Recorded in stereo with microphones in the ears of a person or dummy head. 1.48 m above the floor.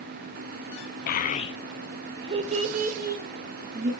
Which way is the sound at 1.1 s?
50° left (ahead or behind).